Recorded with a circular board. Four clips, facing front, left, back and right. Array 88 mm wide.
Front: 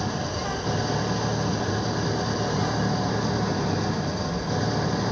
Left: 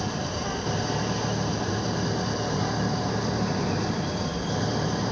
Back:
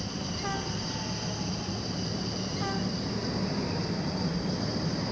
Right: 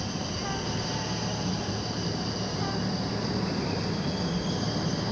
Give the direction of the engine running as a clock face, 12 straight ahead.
11 o'clock.